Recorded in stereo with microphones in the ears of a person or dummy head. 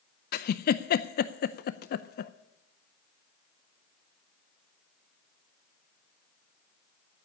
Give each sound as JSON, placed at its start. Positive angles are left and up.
{"t": 0.3, "sound": "a giggle", "side_deg": 50, "distance_m": 0.5}